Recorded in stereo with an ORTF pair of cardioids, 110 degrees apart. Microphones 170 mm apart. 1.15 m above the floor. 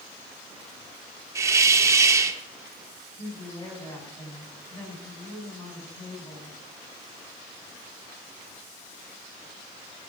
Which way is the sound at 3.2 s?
15° left.